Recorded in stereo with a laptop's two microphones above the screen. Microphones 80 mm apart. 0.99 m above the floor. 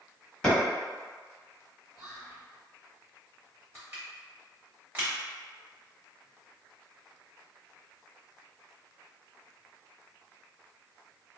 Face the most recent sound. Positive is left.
turn(degrees=-25)  # may be behind; listen again after turning